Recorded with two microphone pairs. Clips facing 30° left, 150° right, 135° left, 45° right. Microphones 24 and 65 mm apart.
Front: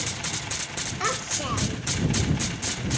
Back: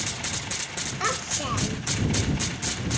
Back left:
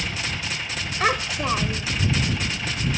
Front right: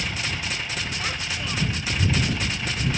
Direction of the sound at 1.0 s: 125° left.